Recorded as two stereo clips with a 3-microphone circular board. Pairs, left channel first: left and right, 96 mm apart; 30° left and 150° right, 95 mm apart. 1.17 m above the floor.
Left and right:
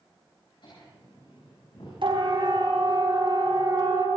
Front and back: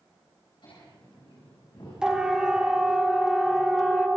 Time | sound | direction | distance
0.6 | laughter | 60° left | 8 m
2.0 | a siren | 70° right | 5 m